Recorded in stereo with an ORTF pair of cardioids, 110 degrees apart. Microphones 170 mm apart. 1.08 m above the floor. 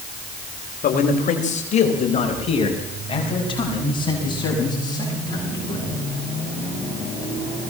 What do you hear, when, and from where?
0.8 s a man speaking: 55° left, 4 m; by 6.1 s 20° left, 9.5 m